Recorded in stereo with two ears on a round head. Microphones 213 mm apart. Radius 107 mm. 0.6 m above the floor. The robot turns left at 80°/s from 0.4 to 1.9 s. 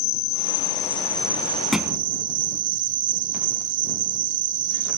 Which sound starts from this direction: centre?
A thud, at 1.7 s.